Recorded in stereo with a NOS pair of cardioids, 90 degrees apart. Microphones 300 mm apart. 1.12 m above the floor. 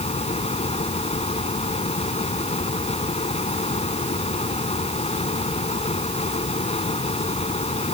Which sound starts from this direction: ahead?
A fan, at 0.0 s.